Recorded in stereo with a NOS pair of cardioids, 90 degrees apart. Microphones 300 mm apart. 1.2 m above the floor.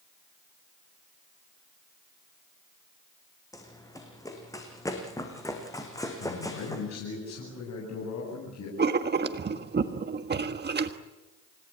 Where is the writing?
35° right, 1.6 m.